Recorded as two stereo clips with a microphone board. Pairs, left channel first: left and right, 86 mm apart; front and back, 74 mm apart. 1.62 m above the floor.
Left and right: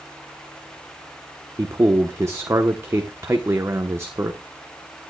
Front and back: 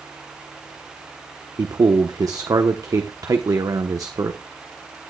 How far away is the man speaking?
About 1.0 m.